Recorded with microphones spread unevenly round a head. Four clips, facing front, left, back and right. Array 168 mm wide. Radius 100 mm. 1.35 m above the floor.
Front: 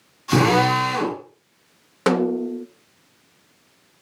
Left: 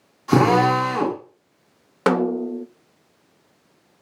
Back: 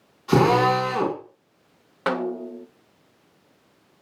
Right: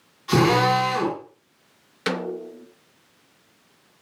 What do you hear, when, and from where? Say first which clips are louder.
0.3 s a drill: left 2 dB, even; 115° left, 7.5 m
2.1 s a snare drum: left 8 dB, front 6 dB; 60° left, 0.7 m